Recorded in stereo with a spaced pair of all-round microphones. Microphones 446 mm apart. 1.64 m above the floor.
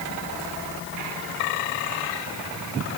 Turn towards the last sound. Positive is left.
No sound to turn to.